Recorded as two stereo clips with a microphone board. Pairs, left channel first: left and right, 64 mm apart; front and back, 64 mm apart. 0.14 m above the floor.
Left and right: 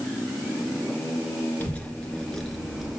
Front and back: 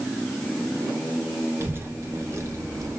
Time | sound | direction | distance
1.6 | a child speaking | 145° left | 1.5 m